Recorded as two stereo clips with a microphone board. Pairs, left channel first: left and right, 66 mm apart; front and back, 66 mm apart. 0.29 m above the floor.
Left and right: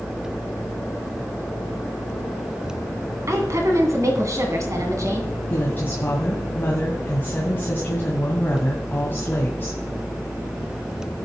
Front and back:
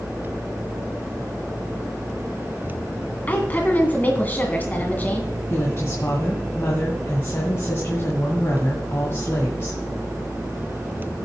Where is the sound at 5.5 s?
40° left, 2 m.